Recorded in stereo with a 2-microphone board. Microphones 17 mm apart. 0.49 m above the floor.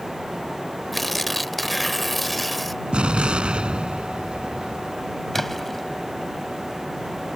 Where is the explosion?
70° right (ahead or behind).